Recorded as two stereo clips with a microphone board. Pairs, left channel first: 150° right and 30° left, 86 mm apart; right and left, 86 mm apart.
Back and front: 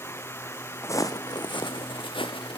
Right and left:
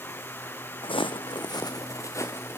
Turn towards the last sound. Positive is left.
turn(degrees=-155)